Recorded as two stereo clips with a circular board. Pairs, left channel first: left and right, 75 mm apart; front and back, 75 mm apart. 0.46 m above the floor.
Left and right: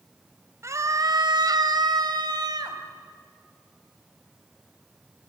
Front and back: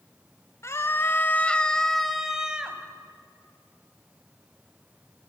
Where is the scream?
45° right, 1.9 m; by 2.8 s 105° right, 2.5 m.